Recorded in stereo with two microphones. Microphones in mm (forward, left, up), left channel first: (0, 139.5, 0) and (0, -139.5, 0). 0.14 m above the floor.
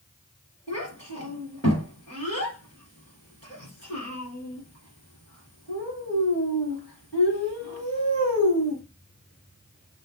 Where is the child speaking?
50° left (ahead or behind), 1.7 m.